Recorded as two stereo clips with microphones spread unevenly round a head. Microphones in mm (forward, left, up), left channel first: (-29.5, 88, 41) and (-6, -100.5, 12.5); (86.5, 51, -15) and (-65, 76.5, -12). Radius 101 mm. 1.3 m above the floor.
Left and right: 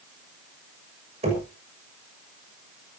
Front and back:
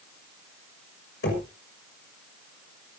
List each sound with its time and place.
1.2 s knocking: 25° right, 6 m